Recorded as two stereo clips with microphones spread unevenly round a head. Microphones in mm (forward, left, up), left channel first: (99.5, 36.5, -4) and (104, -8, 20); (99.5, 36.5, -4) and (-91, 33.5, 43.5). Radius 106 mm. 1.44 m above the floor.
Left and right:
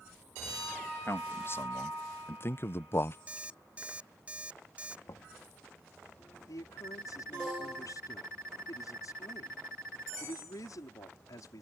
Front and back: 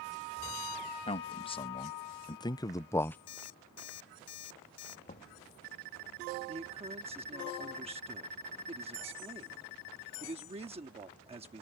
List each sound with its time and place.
1.1 s a man speaking: 60° left; by 3.2 s 80° left
3.3 s an alarm clock: 30° right
5.1 s knocking: 60° left
6.5 s a man speaking: 120° left